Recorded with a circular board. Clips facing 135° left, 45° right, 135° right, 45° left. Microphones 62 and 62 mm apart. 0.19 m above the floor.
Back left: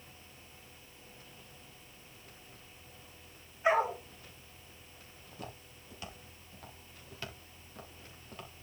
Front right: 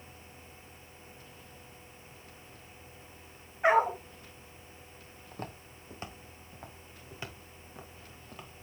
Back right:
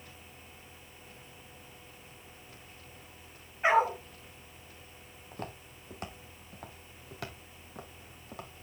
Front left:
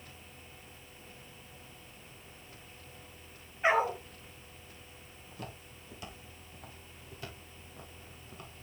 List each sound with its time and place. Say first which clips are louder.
3.6 s a dog barking: front right 4 dB, back right 2 dB; 65° right, 6 m
5.3 s footsteps: front right 4 dB, back right 4 dB; 90° right, 2.5 m; by 8.5 s 130° right, 3.5 m